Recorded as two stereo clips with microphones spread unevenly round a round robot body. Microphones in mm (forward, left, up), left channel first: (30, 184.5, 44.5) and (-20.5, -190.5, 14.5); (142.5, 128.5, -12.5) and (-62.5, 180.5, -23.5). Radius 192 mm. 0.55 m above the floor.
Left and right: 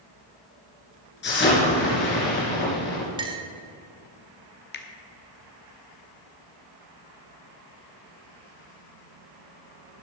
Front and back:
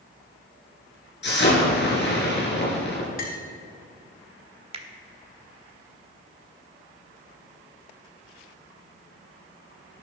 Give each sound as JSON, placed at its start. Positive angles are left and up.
{"t": 1.2, "sound": "an explosion", "azimuth_deg": 20, "distance_m": 3.5}
{"t": 3.2, "sound": "a clink", "azimuth_deg": -35, "distance_m": 0.8}
{"t": 4.7, "sound": "a finger snap", "azimuth_deg": 135, "distance_m": 1.0}